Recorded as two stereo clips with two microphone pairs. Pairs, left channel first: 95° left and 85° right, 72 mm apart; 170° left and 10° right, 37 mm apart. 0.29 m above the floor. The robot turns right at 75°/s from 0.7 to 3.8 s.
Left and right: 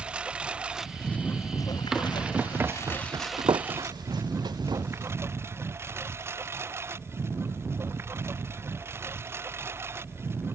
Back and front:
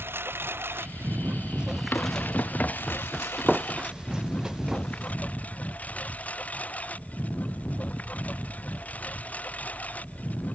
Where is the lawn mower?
10° right; by 10.6 s 140° right.